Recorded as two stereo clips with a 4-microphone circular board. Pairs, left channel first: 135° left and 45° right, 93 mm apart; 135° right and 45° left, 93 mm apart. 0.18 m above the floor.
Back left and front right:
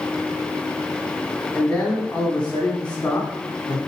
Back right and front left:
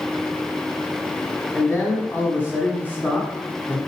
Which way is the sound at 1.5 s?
165° right.